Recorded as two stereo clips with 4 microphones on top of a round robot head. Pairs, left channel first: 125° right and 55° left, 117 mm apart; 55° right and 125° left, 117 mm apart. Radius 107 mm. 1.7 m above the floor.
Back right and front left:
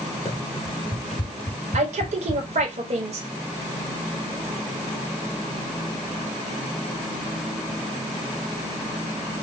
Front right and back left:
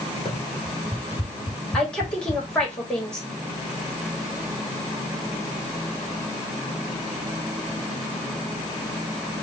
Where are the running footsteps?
175° left, 2.0 m; by 2.7 s 135° right, 2.5 m.